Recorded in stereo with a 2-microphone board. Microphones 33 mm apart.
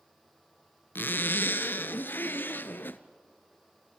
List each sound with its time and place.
0.9 s a zipper: 70° left (ahead or behind), 0.8 m